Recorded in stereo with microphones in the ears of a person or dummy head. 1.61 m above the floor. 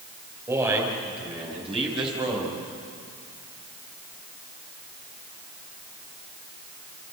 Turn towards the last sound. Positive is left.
turn(degrees=-30)  # may be behind; listen again after turning